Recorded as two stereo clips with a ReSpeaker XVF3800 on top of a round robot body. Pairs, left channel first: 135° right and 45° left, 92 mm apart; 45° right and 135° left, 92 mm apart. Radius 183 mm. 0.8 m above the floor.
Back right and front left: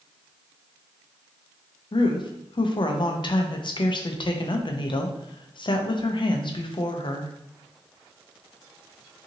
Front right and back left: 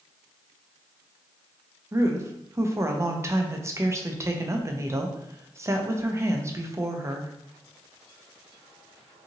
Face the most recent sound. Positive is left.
turn(degrees=-165)